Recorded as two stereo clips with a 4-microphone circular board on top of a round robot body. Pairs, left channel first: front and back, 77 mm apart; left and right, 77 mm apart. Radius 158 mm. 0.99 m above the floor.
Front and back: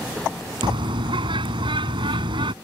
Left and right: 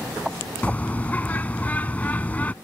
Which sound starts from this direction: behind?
A bird, at 0.6 s.